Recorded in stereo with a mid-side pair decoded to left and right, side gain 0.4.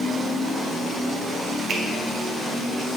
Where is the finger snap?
60° right, 1.3 m.